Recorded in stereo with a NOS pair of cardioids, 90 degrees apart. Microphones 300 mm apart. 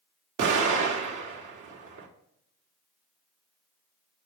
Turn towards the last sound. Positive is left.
turn(degrees=-65)